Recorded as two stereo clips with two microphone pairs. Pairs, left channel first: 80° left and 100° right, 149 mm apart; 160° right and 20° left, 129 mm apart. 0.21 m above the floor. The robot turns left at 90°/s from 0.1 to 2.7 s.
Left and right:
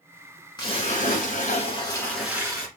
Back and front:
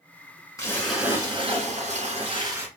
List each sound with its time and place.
0.6 s a splash: 135° left, 1.8 m; by 2.7 s 50° right, 1.8 m